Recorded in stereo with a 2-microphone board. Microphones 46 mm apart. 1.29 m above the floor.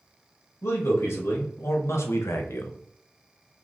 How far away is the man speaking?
About 1.8 m.